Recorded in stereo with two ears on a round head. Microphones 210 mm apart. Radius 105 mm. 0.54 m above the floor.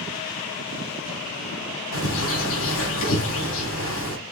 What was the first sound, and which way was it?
A bird, 70° left (ahead or behind).